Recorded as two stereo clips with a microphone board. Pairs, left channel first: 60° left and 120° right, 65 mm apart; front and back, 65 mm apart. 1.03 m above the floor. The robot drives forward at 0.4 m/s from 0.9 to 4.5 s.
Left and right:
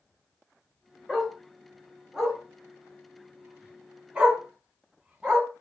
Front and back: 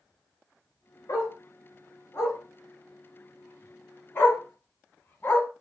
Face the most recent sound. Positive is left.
turn(degrees=-65)